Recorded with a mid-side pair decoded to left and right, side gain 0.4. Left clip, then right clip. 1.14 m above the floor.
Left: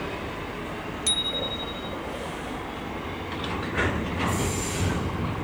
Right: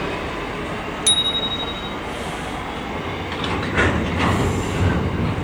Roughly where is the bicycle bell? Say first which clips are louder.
Right 8 dB; ahead right.